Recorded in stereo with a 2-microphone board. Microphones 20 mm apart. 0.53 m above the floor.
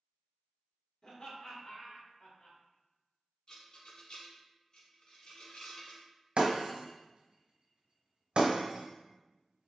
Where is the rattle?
50° left (ahead or behind), 1.2 m.